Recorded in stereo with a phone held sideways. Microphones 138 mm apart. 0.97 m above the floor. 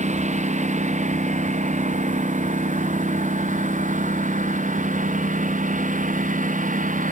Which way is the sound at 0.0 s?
60° right (ahead or behind).